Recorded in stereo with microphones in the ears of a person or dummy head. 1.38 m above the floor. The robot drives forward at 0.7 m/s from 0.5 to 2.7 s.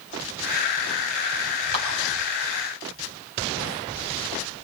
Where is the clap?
65° right (ahead or behind), 8.5 m.